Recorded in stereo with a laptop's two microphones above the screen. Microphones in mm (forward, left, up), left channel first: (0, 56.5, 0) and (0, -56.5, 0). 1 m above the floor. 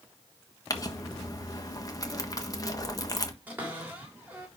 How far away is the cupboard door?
About 3 m.